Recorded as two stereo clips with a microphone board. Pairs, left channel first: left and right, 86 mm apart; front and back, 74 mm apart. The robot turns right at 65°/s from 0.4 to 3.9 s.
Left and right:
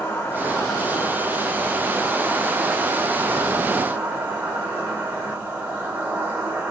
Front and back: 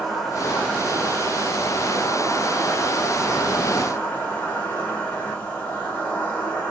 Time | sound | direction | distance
0.0 | an insect | 80° left | 1.0 m